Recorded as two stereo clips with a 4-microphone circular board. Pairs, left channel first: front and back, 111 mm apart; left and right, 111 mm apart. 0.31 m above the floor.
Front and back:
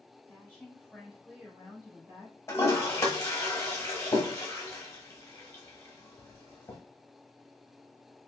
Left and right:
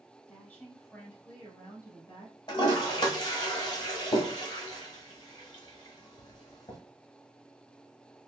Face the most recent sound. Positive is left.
turn(degrees=60)